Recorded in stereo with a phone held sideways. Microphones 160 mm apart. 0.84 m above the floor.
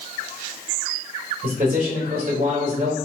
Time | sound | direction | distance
1.4 | a man speaking | 60° right (ahead or behind) | 1.1 m